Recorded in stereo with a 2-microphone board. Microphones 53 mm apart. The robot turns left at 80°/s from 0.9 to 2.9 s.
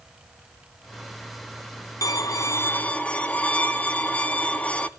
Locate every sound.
2.0 s a violin: 95° left, 0.7 m; by 4.9 s 25° left, 0.7 m